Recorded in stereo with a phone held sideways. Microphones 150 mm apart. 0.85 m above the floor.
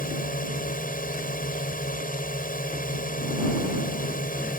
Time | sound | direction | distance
0.0 | a drone | 70° left (ahead or behind) | ?